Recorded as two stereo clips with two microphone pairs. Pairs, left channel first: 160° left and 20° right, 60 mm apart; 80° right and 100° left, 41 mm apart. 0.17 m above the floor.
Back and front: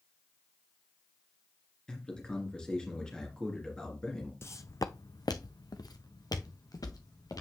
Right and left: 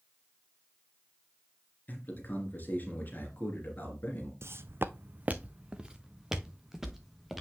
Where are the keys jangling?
No keys jangling in this recording.